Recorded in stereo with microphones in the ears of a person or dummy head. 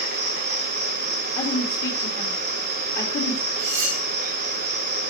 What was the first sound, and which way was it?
An insect, 60° right (ahead or behind).